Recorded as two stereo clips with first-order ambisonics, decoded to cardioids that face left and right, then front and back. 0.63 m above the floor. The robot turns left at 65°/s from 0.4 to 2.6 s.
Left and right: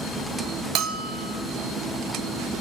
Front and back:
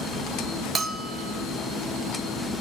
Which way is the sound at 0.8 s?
110° right.